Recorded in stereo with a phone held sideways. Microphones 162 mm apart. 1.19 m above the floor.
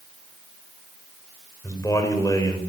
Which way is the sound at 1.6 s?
20° left (ahead or behind).